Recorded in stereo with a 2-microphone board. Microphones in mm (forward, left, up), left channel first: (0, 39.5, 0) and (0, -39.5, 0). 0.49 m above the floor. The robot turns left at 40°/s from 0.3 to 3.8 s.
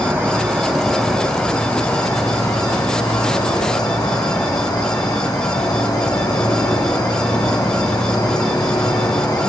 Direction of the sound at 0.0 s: 150° right.